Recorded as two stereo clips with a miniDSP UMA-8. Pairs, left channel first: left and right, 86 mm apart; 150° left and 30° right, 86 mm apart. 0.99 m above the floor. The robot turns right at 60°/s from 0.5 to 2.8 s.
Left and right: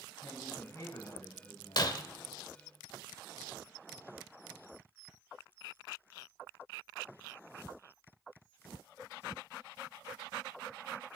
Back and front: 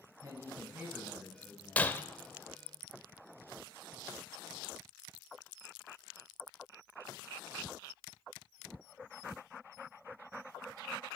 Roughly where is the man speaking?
Ahead.